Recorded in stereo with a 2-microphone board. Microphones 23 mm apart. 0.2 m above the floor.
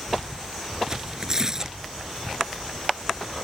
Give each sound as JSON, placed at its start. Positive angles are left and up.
{"t": 0.9, "sound": "tearing paper", "side_deg": -25}